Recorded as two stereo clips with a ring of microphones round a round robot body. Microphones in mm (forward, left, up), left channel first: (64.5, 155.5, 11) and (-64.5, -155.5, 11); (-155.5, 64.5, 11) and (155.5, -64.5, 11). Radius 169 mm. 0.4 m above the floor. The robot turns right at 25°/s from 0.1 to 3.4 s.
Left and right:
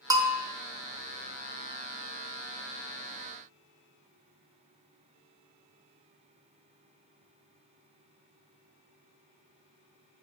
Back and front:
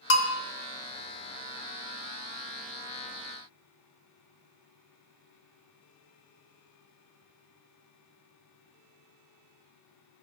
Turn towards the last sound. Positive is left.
turn(degrees=-105)